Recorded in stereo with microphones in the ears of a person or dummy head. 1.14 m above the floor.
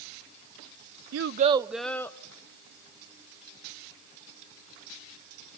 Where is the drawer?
No drawer in this recording.